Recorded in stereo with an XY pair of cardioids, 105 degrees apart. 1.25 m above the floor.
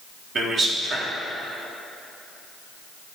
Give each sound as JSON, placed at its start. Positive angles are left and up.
{"t": 0.3, "sound": "a man speaking", "azimuth_deg": -45, "distance_m": 1.5}